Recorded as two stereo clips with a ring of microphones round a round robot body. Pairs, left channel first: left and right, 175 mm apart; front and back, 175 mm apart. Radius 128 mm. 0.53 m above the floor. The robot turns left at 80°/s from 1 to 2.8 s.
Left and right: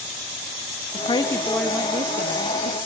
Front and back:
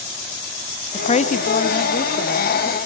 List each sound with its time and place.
0.9 s a woman speaking: 45° left, 0.9 m; by 2.8 s 100° right, 0.9 m